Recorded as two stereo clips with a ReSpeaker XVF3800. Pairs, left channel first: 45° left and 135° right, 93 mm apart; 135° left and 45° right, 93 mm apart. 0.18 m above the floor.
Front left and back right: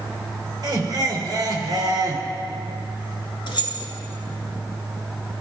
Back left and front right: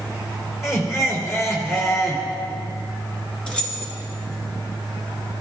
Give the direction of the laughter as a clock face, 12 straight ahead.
6 o'clock.